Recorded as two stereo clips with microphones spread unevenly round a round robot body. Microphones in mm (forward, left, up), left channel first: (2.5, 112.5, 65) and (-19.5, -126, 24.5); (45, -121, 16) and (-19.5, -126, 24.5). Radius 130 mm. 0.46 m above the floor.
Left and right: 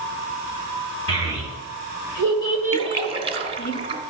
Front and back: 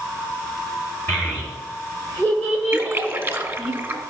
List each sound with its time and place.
1.1 s a child speaking: 85° left, 4 m; by 3.7 s 140° left, 1.2 m
2.7 s a splash: 135° right, 1.4 m